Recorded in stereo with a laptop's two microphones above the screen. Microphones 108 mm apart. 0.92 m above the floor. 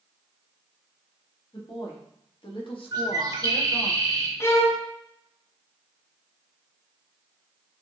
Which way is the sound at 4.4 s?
25° left (ahead or behind).